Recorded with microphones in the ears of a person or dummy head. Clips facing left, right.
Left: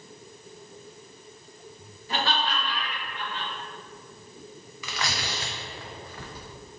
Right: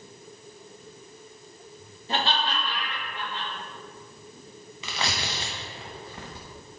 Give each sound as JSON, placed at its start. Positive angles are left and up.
{"t": 2.1, "sound": "laughter", "side_deg": -25, "distance_m": 2.5}
{"t": 4.8, "sound": "tearing paper", "side_deg": -20, "distance_m": 1.0}